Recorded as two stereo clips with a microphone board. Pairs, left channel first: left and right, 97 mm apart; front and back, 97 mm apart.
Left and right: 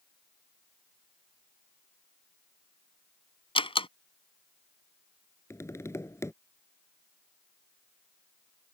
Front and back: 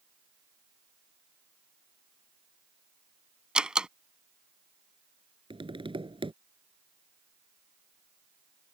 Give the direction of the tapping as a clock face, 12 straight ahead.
7 o'clock.